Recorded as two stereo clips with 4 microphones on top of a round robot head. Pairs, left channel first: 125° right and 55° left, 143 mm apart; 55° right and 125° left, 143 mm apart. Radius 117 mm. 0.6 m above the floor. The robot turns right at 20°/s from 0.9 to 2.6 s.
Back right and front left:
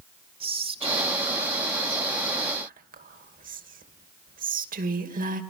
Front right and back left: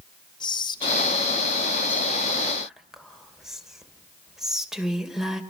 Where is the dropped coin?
I don't hear a dropped coin.